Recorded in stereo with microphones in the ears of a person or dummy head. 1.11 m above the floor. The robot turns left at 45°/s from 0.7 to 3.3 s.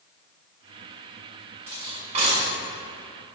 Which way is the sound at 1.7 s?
15° right (ahead or behind).